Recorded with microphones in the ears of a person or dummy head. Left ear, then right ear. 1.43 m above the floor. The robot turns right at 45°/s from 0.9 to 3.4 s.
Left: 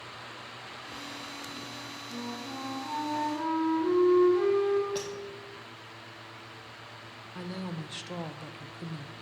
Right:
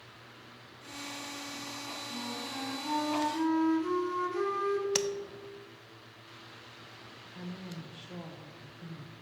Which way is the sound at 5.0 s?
65° right (ahead or behind).